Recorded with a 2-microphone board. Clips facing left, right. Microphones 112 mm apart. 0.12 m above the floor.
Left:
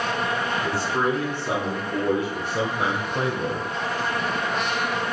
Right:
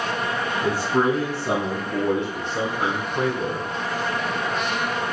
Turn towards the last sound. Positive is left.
turn(degrees=40)  # may be behind; listen again after turning